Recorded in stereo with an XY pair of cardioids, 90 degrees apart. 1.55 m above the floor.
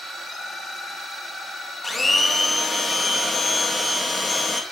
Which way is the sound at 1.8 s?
15° left.